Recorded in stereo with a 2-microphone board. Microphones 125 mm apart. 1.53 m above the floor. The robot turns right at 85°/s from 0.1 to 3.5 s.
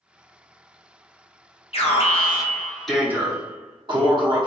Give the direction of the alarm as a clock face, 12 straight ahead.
9 o'clock.